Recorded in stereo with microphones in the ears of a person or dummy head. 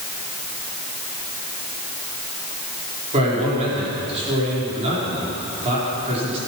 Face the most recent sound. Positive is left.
turn(degrees=-35)  # may be behind; listen again after turning